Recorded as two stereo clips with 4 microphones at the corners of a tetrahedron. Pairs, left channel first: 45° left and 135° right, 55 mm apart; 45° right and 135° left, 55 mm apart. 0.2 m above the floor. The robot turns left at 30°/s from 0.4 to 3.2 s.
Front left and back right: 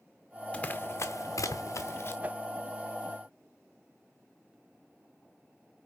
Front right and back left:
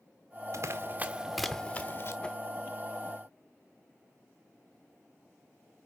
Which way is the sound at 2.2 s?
100° right.